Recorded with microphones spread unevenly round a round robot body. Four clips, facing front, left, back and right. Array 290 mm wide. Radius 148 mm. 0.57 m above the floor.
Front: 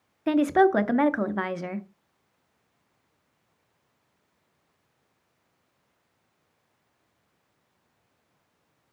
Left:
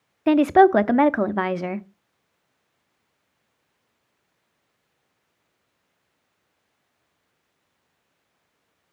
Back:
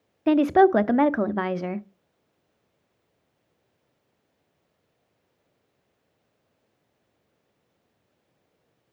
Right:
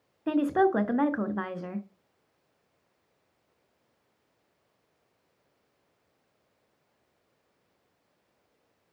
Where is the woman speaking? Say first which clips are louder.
Left 9 dB, back 3 dB; 140° left, 0.6 m.